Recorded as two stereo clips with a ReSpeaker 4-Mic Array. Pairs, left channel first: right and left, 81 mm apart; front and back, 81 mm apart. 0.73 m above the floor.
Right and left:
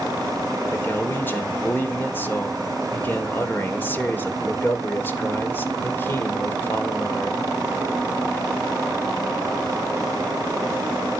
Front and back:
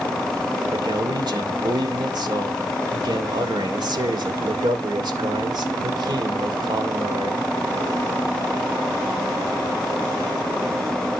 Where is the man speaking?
155° right, 2.5 m.